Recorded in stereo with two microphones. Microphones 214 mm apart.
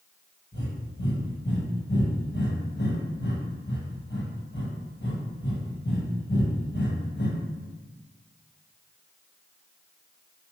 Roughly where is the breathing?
Left.